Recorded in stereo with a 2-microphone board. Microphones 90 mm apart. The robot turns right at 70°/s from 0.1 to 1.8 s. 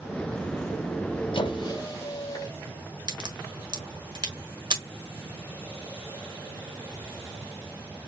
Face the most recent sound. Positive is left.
turn(degrees=-55)  # may be behind; listen again after turning